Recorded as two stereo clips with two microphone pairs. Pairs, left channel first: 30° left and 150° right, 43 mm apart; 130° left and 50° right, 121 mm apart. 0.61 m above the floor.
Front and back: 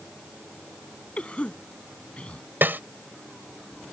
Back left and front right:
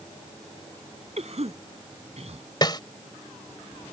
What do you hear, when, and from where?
1.2 s a cough: 30° right
2.6 s a snare drum: straight behind